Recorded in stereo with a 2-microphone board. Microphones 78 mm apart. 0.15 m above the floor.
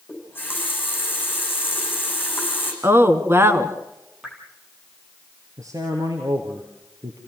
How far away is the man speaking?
About 3 m.